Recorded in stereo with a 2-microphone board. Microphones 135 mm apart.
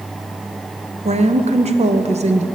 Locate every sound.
1.1 s a woman speaking: 55° right (ahead or behind), 0.6 m